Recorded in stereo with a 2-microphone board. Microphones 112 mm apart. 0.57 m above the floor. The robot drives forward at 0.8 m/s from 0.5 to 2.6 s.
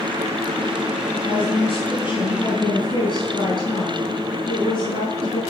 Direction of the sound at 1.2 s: 50° left (ahead or behind).